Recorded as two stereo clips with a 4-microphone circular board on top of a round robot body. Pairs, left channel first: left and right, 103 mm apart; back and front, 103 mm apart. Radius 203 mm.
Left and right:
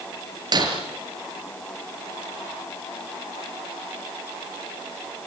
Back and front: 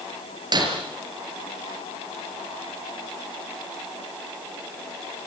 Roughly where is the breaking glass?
Ahead right.